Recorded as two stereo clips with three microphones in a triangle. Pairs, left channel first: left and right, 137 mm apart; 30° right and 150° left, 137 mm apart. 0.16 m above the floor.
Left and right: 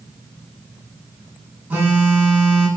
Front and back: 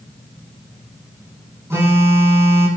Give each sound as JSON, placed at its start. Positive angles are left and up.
{"t": 1.7, "sound": "a phone buzzing", "azimuth_deg": -155, "distance_m": 0.8}